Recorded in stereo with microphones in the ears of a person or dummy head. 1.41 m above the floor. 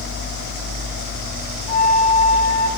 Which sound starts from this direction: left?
A flute, at 1.7 s.